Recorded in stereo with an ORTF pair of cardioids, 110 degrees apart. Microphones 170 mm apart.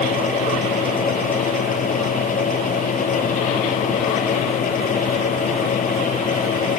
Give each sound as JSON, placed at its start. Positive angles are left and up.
{"t": 0.0, "sound": "a fan", "azimuth_deg": 45}